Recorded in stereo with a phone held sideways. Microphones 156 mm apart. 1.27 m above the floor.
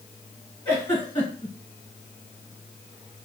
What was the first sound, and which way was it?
A giggle, 10° left (ahead or behind).